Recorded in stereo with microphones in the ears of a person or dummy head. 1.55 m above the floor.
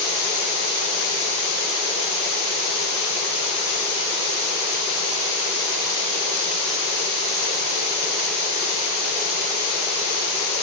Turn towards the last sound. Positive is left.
No sound to turn to.